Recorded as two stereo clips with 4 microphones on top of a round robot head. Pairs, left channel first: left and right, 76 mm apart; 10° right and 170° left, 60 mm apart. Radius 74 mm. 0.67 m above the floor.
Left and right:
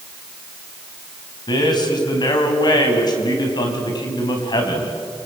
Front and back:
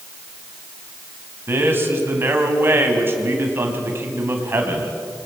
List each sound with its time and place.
1.5 s a man speaking: 115° left, 4.5 m